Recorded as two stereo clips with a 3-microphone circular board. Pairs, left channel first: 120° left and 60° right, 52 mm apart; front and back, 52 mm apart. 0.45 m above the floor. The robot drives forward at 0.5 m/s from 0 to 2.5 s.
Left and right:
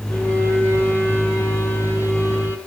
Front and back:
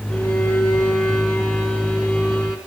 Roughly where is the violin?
Left.